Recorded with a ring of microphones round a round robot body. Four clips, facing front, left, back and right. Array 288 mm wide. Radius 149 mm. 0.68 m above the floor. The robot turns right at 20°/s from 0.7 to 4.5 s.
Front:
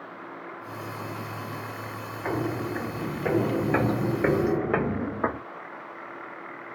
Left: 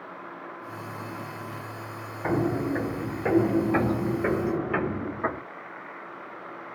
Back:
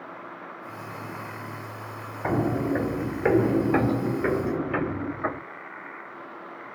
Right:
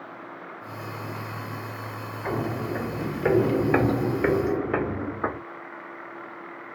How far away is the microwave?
No microwave in this recording.